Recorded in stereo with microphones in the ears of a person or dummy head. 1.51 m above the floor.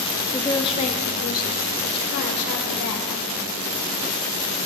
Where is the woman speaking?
15° left (ahead or behind), 0.7 m; by 3.1 s 70° left (ahead or behind), 1.8 m.